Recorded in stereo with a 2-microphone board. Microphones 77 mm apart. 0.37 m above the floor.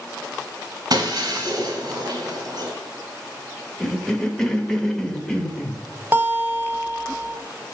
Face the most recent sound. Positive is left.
turn(degrees=-25)  # may be behind; listen again after turning